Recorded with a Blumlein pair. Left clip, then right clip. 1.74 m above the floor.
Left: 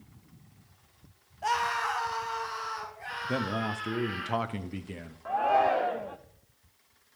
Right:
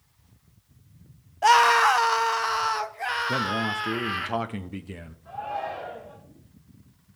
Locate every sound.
1.4 s a scream: 30° right, 0.5 m; by 4.3 s 35° right, 2.5 m
3.3 s a man speaking: 5° right, 0.9 m
5.2 s a shout: 40° left, 0.9 m